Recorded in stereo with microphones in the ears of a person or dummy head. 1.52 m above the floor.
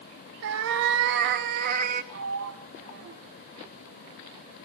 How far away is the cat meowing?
About 1.5 m.